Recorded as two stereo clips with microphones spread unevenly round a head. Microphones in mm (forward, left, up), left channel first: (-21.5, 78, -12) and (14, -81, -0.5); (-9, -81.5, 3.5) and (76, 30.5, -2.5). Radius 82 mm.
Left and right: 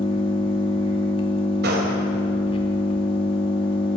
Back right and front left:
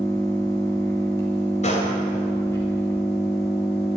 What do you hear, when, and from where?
0.0 s an engine running: 160° left, 2.5 m
1.6 s a gunshot: 95° right, 3.5 m